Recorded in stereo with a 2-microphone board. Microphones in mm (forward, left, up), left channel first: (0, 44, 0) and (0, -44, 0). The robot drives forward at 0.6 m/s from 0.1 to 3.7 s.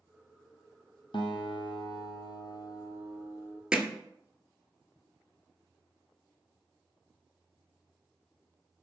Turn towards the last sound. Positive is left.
turn(degrees=-10)  # may be behind; listen again after turning